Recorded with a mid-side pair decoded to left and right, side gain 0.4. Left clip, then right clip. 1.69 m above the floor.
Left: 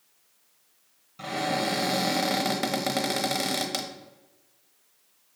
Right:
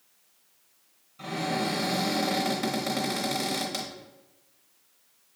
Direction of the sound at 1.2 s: 50° left.